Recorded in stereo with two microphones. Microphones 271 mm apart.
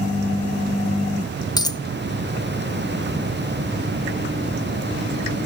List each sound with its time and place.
1.6 s a dropped coin: 15° left (ahead or behind), 0.7 m